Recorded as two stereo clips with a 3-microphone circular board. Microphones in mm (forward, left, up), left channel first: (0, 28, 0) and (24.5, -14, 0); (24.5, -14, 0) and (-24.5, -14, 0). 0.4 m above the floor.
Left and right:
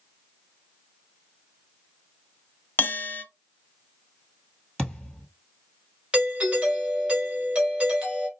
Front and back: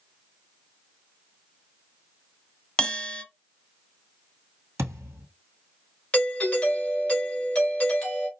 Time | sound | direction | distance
2.8 | a bell | 70° left | 0.6 m
4.8 | a thud | 165° right | 1.5 m
6.1 | a doorbell | 30° right | 1.7 m